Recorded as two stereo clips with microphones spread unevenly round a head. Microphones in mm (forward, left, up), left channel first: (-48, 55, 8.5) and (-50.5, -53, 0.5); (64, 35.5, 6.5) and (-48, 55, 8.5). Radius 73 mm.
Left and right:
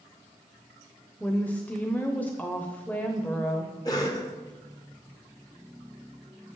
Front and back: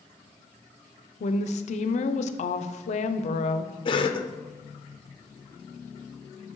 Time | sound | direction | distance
1.2 | a woman speaking | 5° left | 0.6 m
3.9 | a cough | 30° left | 0.7 m